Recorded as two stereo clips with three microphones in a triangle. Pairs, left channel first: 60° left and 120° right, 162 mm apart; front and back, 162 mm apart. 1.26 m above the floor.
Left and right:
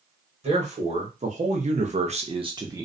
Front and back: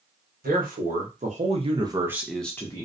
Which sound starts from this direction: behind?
A man speaking, at 0.4 s.